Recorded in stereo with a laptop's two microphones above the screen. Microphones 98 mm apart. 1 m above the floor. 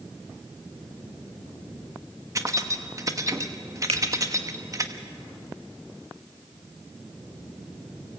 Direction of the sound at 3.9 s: 80° right.